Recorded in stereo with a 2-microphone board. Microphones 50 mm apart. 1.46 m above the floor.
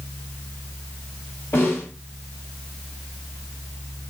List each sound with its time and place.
1.5 s a snare drum: 60° left (ahead or behind), 1.9 m